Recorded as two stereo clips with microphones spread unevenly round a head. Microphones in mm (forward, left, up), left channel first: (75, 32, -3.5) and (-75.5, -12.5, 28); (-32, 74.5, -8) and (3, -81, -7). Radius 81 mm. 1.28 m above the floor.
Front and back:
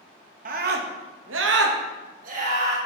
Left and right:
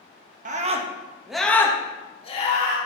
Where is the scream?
120° right, 1.5 m; by 2.8 s 150° left, 2.5 m.